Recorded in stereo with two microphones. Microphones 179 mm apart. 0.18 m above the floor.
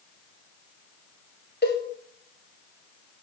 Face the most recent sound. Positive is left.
turn(degrees=70)  # may be behind; listen again after turning